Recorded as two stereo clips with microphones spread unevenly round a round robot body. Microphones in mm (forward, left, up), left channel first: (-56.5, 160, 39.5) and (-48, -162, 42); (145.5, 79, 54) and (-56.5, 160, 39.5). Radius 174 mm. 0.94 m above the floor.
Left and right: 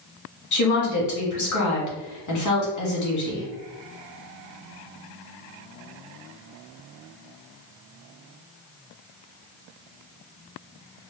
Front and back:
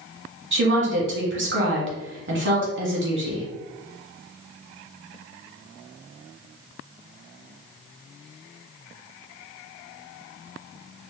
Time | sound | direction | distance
0.5 | a woman speaking | 125° left | 1.5 m